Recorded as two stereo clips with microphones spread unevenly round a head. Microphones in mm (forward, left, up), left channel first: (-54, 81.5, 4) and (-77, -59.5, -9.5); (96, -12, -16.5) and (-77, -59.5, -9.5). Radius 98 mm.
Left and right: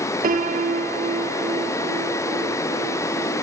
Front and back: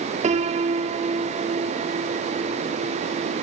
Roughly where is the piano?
Behind right.